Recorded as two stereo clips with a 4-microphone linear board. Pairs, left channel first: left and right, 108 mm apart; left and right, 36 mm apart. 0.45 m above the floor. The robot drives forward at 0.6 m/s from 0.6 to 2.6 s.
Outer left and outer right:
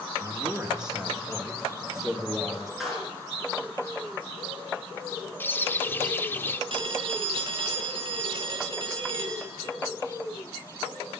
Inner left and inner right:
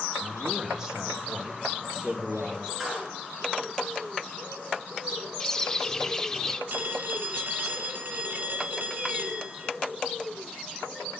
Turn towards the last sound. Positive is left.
turn(degrees=-55)  # may be behind; listen again after turning